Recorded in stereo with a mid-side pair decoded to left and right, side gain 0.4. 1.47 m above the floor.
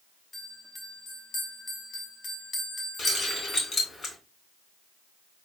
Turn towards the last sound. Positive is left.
turn(degrees=45)